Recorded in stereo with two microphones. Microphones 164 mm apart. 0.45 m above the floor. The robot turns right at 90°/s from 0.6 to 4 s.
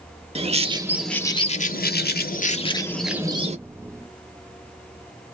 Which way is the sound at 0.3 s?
40° right.